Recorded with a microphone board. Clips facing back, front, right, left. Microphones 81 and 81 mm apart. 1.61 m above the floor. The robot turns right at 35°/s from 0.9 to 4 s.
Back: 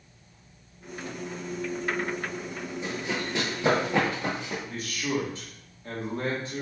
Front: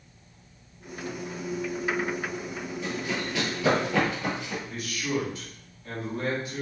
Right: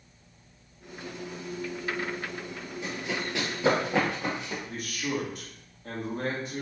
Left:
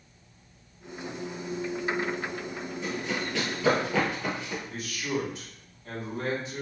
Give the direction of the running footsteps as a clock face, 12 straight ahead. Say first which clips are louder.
Even, left 1 dB; 5 o'clock.